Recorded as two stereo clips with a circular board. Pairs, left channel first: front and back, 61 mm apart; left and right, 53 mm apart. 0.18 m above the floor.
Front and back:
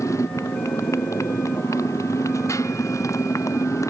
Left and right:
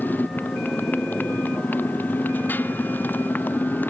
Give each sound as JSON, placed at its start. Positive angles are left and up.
{"t": 0.0, "sound": "a motorcycle", "azimuth_deg": 35}